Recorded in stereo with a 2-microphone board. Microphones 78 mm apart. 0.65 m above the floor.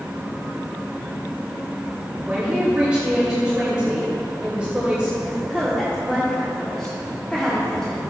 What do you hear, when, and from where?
2.2 s a man speaking: 15° right (ahead or behind), 2.5 m
5.2 s a woman speaking: 10° left (ahead or behind), 1.7 m